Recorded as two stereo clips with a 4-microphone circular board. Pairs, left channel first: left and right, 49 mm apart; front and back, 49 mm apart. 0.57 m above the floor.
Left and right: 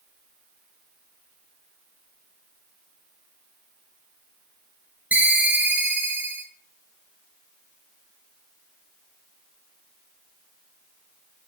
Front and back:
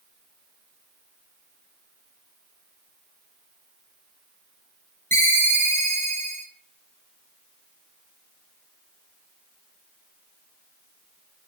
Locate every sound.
5.1 s a ringtone: 35° right, 0.6 m